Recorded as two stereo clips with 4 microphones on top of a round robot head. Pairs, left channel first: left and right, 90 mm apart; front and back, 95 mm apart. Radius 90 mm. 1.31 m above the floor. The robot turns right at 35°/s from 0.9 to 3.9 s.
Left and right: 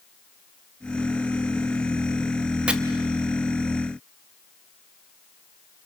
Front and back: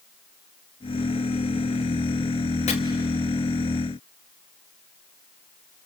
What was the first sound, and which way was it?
Chopping, 10° right.